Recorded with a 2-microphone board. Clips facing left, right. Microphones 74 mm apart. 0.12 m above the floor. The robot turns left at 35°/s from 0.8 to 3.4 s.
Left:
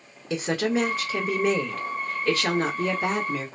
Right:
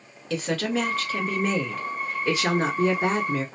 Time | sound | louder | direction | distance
0.3 | a woman speaking | left 1 dB | 25° left | 1.3 m